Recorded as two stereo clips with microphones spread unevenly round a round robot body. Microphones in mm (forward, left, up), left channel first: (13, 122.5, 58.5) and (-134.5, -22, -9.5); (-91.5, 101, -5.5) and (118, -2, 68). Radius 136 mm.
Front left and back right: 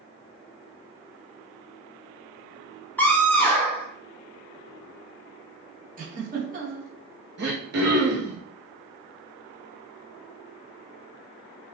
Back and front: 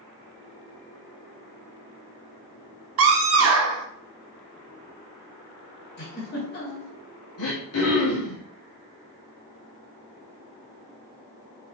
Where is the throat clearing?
170° right, 4 m.